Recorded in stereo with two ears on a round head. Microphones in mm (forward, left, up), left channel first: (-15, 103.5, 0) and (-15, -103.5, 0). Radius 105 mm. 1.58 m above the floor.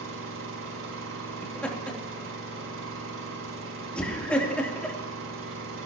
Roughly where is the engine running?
Right.